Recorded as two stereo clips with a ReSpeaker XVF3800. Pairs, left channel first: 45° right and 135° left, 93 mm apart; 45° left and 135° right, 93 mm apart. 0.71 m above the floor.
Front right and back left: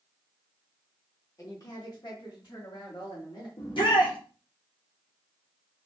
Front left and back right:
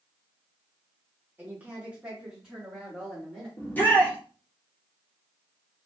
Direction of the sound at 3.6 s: 25° right.